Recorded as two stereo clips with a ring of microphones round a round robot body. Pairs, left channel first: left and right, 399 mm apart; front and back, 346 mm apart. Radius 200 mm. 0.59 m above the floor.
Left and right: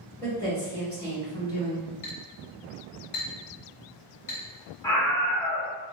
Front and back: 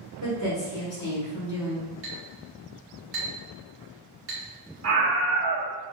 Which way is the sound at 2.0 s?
130° left.